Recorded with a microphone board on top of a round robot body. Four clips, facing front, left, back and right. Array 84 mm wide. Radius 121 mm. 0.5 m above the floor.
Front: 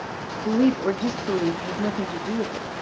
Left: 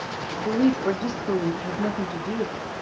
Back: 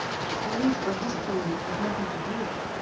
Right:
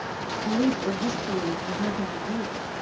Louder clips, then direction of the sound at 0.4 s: Left 3 dB, front 7 dB; 25° left.